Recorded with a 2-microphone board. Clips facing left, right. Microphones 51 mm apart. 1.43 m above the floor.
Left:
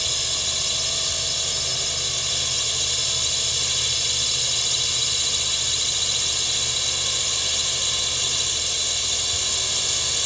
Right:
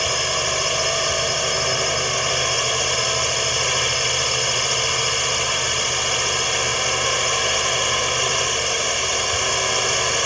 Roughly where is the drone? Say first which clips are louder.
Right 8 dB; right.